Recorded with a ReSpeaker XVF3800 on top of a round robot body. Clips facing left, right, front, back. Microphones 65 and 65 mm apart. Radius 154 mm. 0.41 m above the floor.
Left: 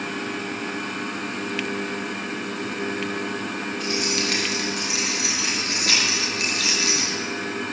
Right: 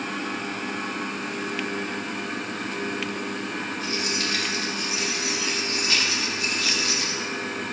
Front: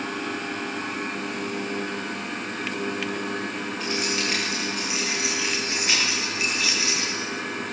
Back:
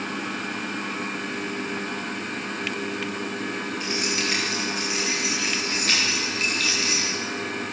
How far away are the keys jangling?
About 8.5 m.